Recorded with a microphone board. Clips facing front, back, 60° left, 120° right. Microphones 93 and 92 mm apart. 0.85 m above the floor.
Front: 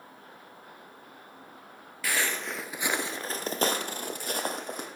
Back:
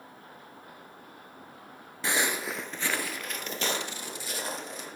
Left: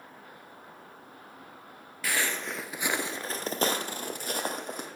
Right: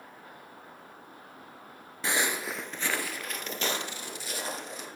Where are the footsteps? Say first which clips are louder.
Back 2 dB, right 1 dB; 150° right, 0.9 m; by 4.9 s 30° left, 2 m.